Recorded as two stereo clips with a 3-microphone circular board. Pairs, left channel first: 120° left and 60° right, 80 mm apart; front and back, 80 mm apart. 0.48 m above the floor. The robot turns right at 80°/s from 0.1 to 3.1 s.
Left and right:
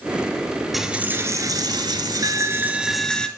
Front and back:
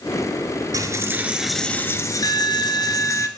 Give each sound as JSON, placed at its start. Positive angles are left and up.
{"t": 0.7, "sound": "a dropped coin", "azimuth_deg": -150, "distance_m": 0.6}